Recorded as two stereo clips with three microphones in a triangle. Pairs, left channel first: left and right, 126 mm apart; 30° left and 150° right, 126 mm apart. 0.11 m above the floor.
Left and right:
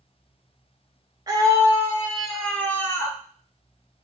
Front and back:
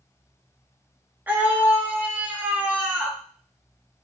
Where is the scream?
90° right, 1.2 m; by 3.2 s 135° left, 1.3 m.